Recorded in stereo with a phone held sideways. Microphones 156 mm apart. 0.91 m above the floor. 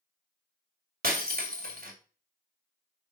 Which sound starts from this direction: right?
Breaking glass, at 1.0 s.